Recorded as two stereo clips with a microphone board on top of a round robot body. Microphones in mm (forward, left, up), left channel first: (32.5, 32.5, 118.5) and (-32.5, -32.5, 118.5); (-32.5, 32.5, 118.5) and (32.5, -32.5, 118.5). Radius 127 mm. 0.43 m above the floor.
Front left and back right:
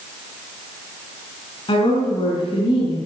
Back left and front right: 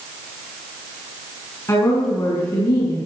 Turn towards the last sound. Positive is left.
turn(degrees=85)